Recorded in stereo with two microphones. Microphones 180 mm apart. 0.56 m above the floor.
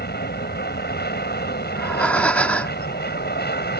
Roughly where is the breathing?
Centre.